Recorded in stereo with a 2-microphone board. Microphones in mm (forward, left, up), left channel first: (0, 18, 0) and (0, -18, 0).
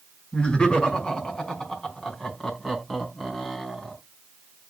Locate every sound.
0.3 s laughter: 30° left (ahead or behind), 5.5 m; by 4.0 s 10° left (ahead or behind), 8 m